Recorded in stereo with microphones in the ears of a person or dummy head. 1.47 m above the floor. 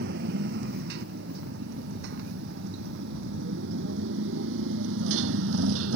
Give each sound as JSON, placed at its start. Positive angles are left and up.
{"t": 0.0, "sound": "a motorcycle", "side_deg": -60}